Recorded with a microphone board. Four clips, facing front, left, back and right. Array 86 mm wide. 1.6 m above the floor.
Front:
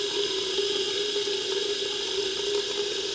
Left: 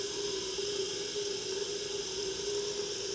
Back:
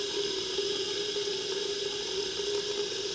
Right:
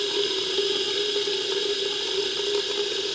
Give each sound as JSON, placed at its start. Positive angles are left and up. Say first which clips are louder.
{"t": 0.0, "sound": "running water", "louder": "right 9 dB, front 4 dB", "azimuth_deg": -70, "distance_m": 1.8}